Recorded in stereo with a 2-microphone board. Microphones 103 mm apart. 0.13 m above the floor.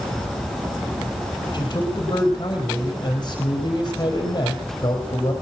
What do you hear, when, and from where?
1.5 s a man speaking: 40° left (ahead or behind), 4 m